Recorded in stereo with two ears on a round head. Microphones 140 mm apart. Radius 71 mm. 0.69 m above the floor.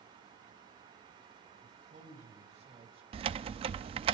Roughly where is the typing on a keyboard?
Right.